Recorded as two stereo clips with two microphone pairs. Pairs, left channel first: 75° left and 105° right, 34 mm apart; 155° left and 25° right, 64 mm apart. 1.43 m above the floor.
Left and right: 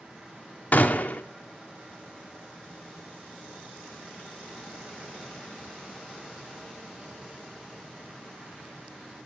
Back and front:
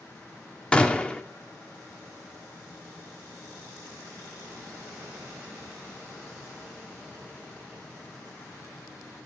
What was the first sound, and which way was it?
A gunshot, 80° left.